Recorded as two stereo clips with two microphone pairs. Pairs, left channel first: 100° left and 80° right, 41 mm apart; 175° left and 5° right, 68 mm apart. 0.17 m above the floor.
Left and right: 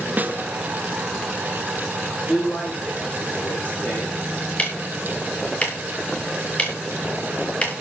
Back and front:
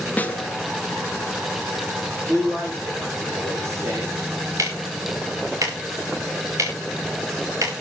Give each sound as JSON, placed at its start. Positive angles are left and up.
{"t": 0.2, "sound": "a snare drum", "azimuth_deg": -120, "distance_m": 1.0}
{"t": 2.3, "sound": "a man speaking", "azimuth_deg": 40, "distance_m": 7.0}
{"t": 4.6, "sound": "ticking", "azimuth_deg": 40, "distance_m": 3.5}